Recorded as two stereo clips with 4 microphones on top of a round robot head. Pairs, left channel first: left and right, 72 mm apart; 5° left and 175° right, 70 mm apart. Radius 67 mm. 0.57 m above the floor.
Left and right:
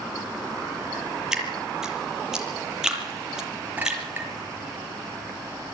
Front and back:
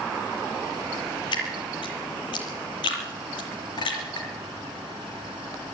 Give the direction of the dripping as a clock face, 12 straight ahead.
12 o'clock.